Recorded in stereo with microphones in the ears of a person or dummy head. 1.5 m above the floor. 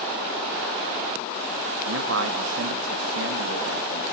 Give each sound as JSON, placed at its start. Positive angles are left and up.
{"t": 1.9, "sound": "a man speaking", "side_deg": -80, "distance_m": 2.5}